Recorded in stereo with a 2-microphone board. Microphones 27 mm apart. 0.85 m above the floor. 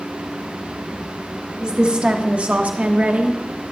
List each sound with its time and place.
1.6 s a woman speaking: 30° right (ahead or behind), 1.4 m; by 3.4 s 75° right (ahead or behind), 1.4 m